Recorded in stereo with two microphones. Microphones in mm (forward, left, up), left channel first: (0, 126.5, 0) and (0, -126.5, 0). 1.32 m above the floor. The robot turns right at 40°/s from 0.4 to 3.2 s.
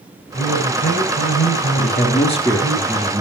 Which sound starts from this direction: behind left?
A man speaking, at 1.8 s.